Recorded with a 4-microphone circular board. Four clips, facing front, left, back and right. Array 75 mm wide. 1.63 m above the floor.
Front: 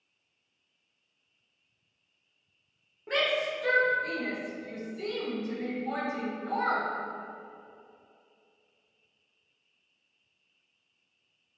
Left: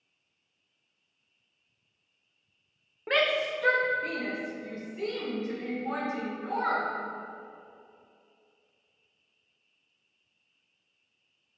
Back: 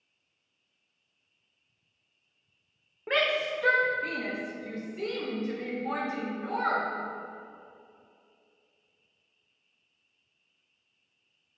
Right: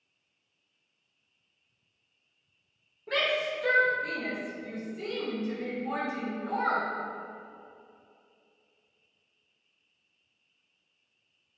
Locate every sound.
3.1 s a shout: 125° left, 1.2 m; by 6.8 s 150° left, 3.5 m